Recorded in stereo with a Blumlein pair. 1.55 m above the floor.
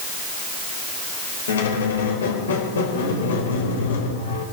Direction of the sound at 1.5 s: 65° left.